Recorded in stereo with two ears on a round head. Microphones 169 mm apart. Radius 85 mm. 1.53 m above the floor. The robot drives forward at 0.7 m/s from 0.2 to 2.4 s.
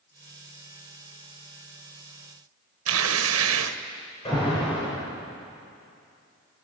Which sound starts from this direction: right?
Tearing paper, at 2.9 s.